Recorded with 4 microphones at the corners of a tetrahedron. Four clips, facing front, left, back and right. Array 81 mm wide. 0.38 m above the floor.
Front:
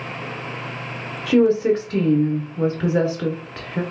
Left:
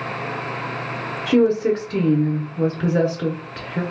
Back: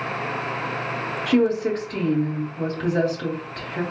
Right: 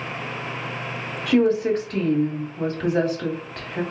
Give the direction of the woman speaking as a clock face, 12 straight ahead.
11 o'clock.